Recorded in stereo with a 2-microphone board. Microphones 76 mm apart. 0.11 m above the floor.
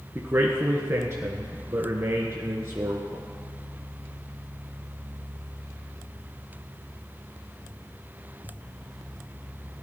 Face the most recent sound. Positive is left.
turn(degrees=-35)  # may be behind; listen again after turning